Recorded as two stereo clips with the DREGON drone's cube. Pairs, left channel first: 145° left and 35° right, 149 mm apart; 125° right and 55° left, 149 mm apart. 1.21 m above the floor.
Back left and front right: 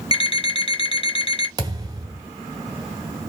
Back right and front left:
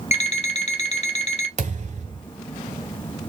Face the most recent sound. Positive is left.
turn(degrees=30)